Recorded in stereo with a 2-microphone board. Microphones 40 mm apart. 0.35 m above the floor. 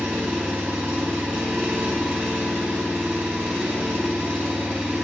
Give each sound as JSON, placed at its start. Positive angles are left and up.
{"t": 0.0, "sound": "an engine running", "side_deg": -65, "distance_m": 3.0}